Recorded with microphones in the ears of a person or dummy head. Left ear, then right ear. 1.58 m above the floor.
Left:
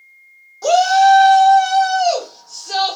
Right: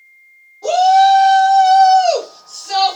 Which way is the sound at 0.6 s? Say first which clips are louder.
Right 1 dB; 50° left (ahead or behind).